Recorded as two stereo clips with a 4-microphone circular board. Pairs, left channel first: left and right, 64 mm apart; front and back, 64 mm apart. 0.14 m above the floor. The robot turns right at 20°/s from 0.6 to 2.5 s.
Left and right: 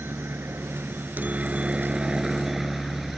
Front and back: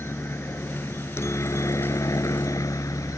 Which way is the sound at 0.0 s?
40° right.